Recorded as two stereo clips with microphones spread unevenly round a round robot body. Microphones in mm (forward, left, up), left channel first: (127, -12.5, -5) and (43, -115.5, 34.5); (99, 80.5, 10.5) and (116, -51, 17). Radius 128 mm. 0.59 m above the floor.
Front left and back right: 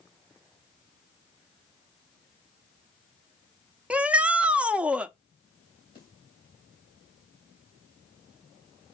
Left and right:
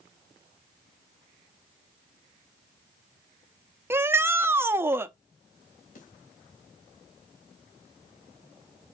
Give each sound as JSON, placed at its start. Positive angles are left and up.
{"t": 3.9, "sound": "a shout", "azimuth_deg": -25, "distance_m": 0.8}
{"t": 6.0, "sound": "a snare drum", "azimuth_deg": 110, "distance_m": 3.5}